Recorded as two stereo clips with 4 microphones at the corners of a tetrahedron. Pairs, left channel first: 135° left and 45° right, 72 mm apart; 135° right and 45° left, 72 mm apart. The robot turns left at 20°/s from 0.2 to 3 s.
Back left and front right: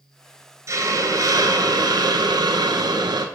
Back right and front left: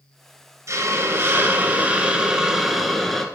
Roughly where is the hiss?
Ahead.